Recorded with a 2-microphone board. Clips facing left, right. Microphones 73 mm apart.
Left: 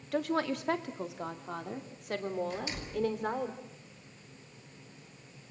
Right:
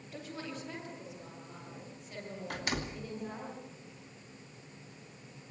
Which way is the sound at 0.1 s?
75° left (ahead or behind).